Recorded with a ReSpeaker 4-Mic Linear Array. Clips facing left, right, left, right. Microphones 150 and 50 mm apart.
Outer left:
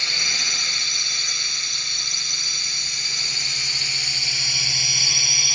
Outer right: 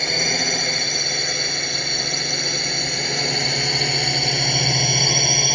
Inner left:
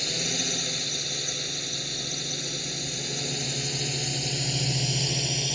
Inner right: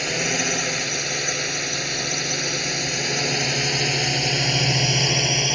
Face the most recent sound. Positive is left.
turn(degrees=-55)  # may be behind; listen again after turning